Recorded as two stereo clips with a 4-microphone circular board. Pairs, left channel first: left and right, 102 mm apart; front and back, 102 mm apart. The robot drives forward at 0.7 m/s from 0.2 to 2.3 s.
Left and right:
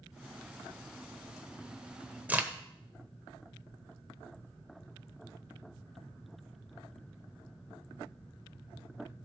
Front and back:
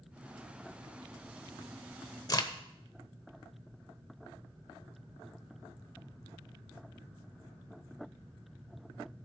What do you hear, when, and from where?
2.3 s a crack: 25° right, 0.9 m